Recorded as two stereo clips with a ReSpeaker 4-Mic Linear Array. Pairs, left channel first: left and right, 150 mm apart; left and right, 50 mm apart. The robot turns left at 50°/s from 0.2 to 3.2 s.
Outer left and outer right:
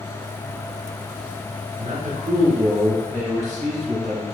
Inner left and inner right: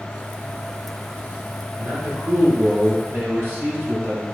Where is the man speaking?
50° right, 1.2 m; by 4.2 s 120° right, 1.2 m.